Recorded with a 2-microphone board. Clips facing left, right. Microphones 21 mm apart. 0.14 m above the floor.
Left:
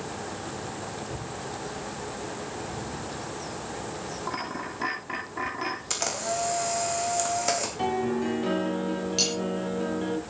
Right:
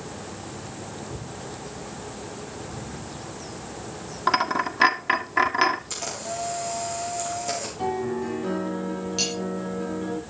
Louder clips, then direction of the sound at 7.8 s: Right 2 dB; 40° left (ahead or behind).